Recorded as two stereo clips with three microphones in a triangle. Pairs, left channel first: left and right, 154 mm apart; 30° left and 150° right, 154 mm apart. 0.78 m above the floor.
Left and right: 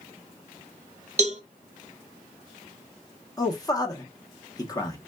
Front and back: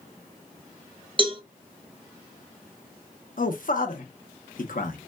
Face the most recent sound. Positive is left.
turn(degrees=30)